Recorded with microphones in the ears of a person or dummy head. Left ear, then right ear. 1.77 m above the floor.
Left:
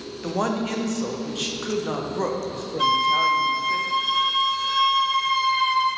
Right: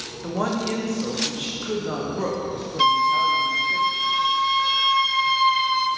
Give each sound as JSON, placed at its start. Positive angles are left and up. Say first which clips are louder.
{"t": 0.2, "sound": "a woman speaking", "louder": "even", "side_deg": 15, "distance_m": 0.7}
{"t": 2.8, "sound": "a flute", "louder": "right 1 dB", "side_deg": -25, "distance_m": 0.5}